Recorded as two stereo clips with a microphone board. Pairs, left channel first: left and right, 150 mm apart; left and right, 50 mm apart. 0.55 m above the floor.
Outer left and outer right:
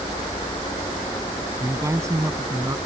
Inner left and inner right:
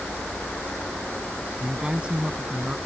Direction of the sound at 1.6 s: 20° right (ahead or behind).